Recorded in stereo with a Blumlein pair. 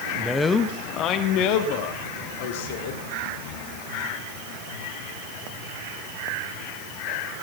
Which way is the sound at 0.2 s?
Straight ahead.